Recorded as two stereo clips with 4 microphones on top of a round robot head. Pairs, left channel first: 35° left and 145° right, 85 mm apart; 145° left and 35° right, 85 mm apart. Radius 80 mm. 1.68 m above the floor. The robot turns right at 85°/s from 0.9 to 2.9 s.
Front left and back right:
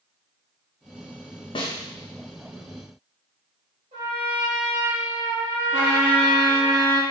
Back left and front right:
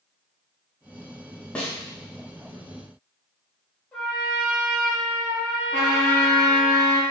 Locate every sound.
1.6 s a snare drum: 65° left, 0.9 m; by 1.7 s 80° left, 0.9 m
3.9 s a trumpet: 135° right, 2.5 m
5.7 s a trumpet: 150° right, 1.5 m